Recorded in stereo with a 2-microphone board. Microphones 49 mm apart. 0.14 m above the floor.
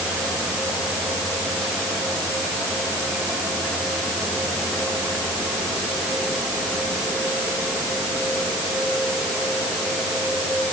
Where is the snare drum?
No snare drum in this recording.